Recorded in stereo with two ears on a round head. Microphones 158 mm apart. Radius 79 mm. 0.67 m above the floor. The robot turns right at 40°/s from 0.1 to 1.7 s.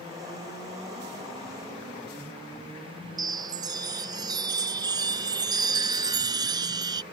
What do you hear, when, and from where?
3.2 s a chime: 25° right (ahead or behind)